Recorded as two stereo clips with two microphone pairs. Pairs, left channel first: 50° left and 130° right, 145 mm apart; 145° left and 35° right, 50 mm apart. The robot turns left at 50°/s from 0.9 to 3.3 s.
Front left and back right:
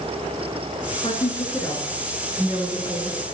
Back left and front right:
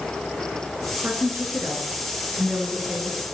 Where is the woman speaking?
10° left, 4.5 m; by 3.2 s 105° right, 4.5 m.